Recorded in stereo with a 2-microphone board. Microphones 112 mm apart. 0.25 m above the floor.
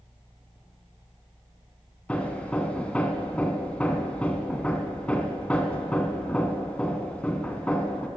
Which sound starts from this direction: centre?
Hammering, at 2.1 s.